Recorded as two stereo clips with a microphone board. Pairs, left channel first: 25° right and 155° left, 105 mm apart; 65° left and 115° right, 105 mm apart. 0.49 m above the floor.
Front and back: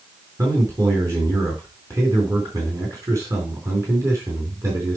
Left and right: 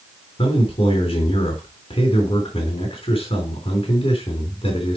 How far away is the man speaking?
About 4 m.